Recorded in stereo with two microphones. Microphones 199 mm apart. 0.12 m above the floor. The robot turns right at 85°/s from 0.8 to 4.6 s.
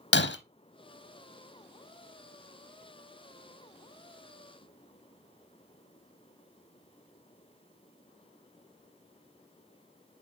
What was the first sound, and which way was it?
Breaking glass, 65° left (ahead or behind).